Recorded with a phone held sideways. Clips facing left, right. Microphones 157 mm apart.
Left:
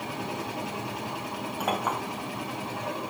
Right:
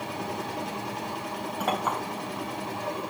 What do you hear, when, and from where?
0.0 s a machine running: centre (ahead or behind), 3 m
1.6 s a clink: 5° left (ahead or behind), 3 m